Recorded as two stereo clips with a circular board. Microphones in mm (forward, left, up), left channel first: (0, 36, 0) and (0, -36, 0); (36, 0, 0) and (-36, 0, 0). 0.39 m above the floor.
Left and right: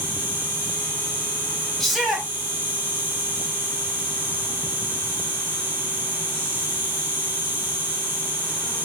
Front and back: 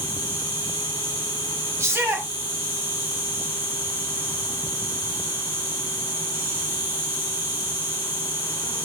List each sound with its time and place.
0.0 s an insect: 135° right, 0.9 m
1.8 s a shout: 175° left, 0.9 m